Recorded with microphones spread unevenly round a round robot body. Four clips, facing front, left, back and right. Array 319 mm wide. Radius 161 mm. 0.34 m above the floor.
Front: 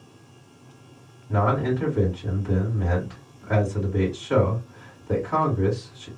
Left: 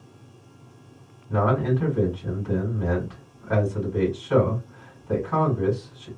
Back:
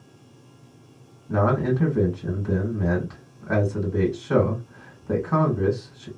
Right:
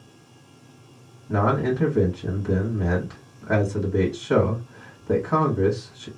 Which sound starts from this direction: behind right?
A man speaking, at 1.3 s.